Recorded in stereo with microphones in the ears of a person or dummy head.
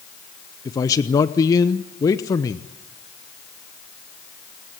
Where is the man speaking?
25° left (ahead or behind), 0.8 m.